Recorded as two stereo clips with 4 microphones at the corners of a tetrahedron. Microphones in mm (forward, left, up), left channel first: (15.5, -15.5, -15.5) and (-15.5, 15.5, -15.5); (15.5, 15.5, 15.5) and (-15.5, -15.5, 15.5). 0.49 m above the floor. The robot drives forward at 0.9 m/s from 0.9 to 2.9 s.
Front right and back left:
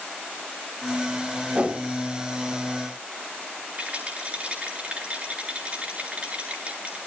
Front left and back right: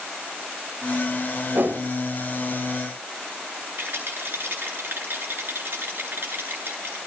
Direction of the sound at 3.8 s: 165° right.